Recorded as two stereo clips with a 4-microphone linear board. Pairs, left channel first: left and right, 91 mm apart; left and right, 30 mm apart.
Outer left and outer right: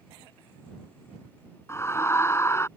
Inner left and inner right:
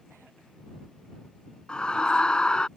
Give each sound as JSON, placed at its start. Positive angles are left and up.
{"t": 1.7, "sound": "a scream", "side_deg": 30}